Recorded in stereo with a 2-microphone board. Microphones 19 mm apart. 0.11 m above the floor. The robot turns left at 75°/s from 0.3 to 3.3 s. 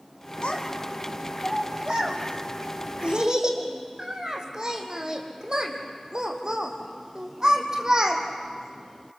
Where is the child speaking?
70° left (ahead or behind), 4 m; by 8.2 s 40° right (ahead or behind), 4 m.